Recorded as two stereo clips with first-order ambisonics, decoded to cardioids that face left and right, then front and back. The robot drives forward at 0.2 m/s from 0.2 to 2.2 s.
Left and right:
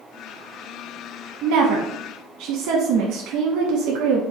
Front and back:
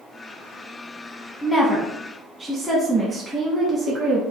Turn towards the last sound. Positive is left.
turn(degrees=-105)